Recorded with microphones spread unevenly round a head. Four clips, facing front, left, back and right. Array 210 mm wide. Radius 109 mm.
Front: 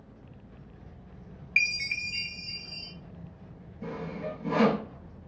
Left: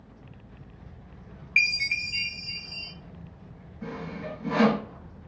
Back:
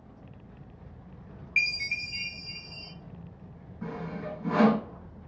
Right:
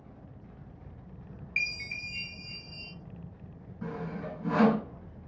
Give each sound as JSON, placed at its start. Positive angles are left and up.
{"t": 1.6, "sound": "a chime", "azimuth_deg": 0, "distance_m": 0.8}
{"t": 3.8, "sound": "sawing", "azimuth_deg": -120, "distance_m": 2.5}